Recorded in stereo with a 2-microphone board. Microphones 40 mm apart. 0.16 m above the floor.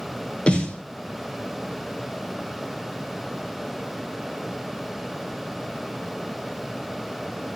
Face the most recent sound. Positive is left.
turn(degrees=30)  # may be behind; listen again after turning